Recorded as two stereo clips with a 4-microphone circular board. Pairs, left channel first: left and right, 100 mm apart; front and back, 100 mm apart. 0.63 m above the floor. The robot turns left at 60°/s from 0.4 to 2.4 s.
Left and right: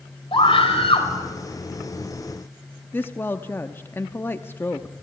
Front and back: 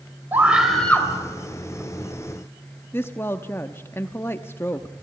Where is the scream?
110° left, 3 m; by 1.1 s 65° left, 3 m.